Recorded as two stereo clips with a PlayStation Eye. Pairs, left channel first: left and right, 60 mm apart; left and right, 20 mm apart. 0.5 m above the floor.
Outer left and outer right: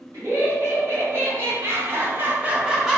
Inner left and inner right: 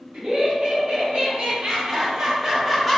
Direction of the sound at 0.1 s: 55° right (ahead or behind).